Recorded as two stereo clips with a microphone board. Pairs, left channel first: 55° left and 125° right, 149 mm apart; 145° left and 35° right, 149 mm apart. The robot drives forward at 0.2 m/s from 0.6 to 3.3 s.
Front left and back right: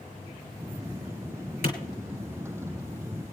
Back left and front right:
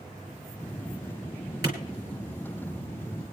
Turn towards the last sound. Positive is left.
turn(degrees=30)